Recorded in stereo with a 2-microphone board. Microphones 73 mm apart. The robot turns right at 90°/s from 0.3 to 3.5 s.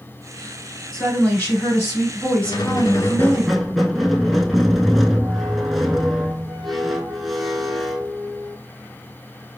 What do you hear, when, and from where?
0.9 s a woman speaking: 15° left, 1.6 m; by 3.4 s 120° right, 1.6 m
2.4 s a squeak: 85° left, 0.5 m; by 8.6 s straight behind, 0.5 m